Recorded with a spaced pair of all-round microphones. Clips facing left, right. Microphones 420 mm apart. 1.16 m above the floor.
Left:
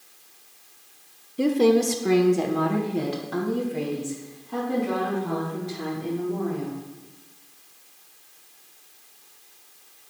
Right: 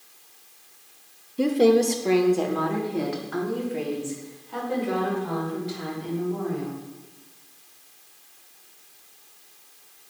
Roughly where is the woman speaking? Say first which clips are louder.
Right 1 dB; centre.